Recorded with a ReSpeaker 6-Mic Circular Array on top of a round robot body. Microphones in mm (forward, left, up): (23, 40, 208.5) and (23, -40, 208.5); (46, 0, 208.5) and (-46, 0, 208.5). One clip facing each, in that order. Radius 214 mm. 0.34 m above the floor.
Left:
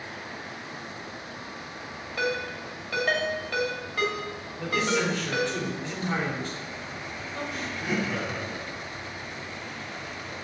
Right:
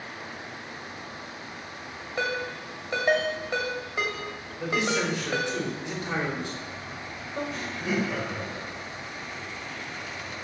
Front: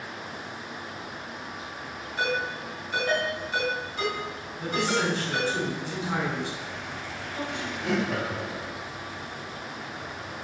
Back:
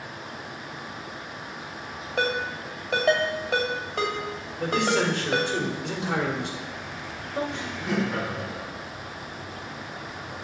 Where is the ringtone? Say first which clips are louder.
Even, back 2 dB; 155° right, 2 m.